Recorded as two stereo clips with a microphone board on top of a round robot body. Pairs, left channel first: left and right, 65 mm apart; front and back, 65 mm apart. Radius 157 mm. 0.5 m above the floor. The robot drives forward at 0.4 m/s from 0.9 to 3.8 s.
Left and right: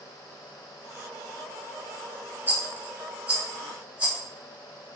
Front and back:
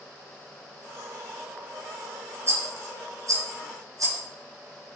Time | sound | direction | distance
2.5 | a rattle | 145° right | 1.0 m